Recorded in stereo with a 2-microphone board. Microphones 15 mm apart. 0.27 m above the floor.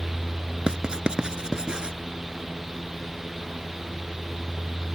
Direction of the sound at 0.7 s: 80° right.